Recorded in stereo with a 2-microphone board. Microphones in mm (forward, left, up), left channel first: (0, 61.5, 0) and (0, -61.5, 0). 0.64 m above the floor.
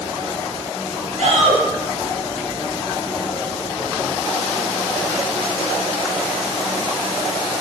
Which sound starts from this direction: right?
A shout, at 1.2 s.